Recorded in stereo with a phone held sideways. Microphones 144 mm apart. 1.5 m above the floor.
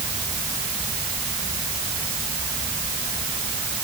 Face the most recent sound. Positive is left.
No sound to turn to.